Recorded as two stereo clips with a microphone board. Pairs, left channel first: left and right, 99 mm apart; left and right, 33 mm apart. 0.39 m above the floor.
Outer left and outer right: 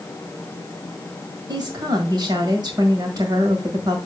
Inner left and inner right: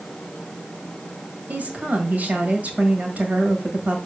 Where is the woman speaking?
45° right (ahead or behind), 1.7 m.